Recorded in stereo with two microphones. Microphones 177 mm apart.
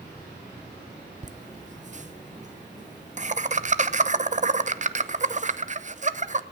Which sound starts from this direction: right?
Laughter, at 1.2 s.